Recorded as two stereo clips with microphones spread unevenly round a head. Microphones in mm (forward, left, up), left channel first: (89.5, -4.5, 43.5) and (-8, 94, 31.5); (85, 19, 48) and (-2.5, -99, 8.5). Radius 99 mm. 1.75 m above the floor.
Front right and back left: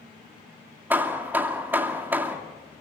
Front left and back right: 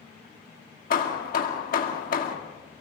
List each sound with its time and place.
0.9 s hammering: 55° left, 2.5 m